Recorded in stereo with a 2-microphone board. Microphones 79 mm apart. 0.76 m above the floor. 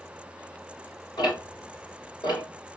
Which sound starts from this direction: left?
Ticking, at 1.2 s.